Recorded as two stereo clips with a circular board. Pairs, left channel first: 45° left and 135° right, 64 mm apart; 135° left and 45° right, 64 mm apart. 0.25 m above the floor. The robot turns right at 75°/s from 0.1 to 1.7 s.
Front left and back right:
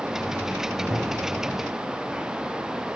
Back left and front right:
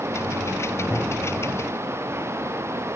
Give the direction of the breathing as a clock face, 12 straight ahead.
No breathing in this recording.